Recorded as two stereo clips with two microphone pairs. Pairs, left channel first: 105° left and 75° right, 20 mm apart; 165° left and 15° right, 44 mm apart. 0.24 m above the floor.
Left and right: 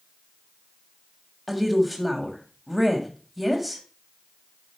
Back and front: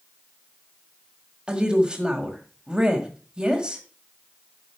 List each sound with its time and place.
1.5 s a woman speaking: 5° left, 1.6 m